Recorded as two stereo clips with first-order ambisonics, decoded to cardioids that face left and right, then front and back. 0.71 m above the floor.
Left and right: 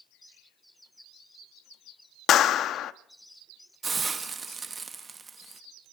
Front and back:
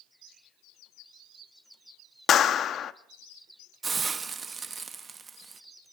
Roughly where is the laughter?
No laughter in this recording.